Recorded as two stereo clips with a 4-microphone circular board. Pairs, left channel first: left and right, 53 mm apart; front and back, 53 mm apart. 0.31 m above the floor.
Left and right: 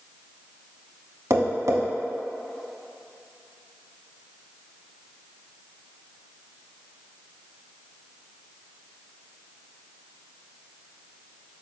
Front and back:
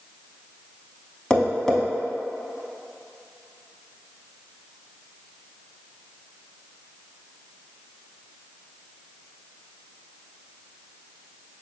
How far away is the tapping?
About 0.6 m.